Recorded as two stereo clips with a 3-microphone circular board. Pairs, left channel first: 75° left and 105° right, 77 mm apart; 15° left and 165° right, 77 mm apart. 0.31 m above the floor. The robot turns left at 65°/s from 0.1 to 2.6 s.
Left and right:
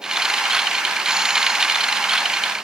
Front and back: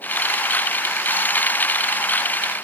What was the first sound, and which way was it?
Only background noise.